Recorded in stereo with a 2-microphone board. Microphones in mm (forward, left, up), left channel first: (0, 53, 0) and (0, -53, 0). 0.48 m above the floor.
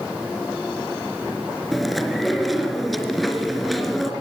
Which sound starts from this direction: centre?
Chewing, at 1.7 s.